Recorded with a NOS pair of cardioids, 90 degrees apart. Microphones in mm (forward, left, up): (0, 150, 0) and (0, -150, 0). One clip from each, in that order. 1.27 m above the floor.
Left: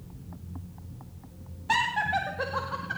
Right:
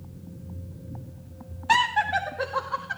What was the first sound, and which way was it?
Laughter, 35° right.